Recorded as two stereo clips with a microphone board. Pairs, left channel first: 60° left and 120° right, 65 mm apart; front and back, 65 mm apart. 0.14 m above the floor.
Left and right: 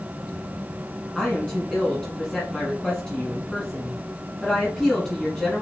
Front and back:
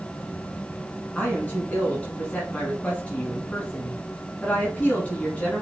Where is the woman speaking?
5° right, 1.5 m.